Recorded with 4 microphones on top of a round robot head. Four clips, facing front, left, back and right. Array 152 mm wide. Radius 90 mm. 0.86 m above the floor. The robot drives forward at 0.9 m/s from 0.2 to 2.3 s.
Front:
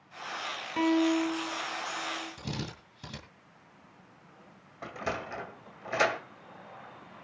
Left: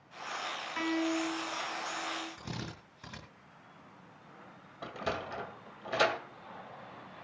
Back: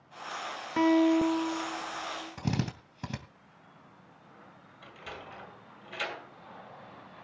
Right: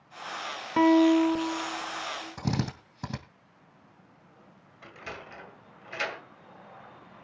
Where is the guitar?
105° right, 1.5 m; by 2.3 s 140° right, 2.5 m.